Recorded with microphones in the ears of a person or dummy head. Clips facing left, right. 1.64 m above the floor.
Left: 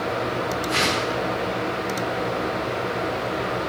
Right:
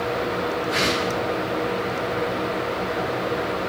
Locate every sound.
0.7 s a whoosh: 55° left (ahead or behind), 0.9 m